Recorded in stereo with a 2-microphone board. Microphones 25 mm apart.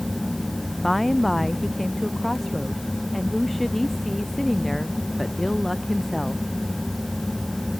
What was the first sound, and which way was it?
A woman speaking, 5° left (ahead or behind).